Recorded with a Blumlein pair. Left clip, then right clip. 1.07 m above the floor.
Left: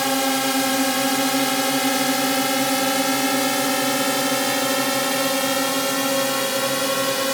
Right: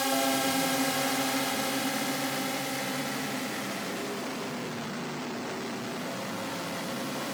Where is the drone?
70° left; by 7.3 s 35° left.